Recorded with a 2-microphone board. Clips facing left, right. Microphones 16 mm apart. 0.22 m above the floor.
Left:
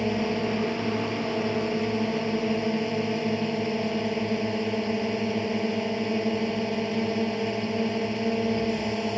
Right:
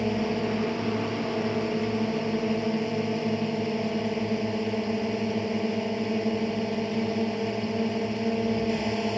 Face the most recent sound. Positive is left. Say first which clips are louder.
# left 1 dB
turn(degrees=10)  # may be behind; listen again after turning